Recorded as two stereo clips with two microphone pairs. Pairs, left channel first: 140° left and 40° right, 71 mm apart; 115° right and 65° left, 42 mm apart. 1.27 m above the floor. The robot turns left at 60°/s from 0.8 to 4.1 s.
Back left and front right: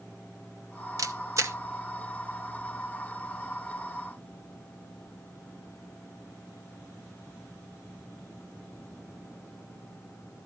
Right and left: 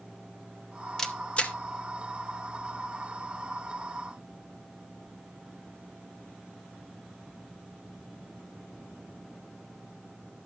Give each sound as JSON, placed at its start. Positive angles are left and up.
{"t": 1.0, "sound": "a camera shutter", "azimuth_deg": -40, "distance_m": 0.8}